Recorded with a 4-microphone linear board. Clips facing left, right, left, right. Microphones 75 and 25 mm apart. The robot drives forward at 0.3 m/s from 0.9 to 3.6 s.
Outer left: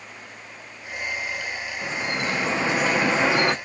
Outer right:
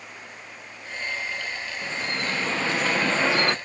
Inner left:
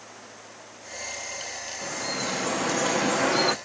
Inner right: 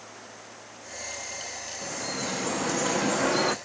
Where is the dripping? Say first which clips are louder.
Outer left 3 dB, inner left 3 dB; 15° left (ahead or behind), 0.5 m.